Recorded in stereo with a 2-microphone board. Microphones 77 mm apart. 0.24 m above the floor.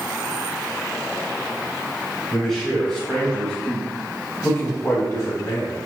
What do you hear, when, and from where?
2.3 s a man speaking: centre (ahead or behind), 1.8 m; by 5.8 s 50° left (ahead or behind), 1.3 m